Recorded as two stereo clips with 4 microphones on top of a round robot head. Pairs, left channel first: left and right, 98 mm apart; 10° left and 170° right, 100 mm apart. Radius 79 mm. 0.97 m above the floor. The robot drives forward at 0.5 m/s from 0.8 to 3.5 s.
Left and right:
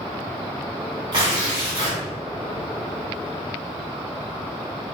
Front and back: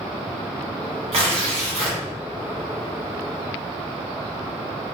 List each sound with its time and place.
1.1 s tearing paper: 140° right, 1.5 m; by 2.0 s 150° right, 1.9 m